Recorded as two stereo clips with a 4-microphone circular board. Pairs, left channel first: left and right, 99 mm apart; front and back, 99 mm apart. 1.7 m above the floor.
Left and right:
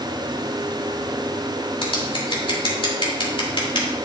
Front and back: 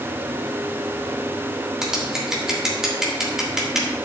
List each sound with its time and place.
1.8 s scissors: 95° left, 2.5 m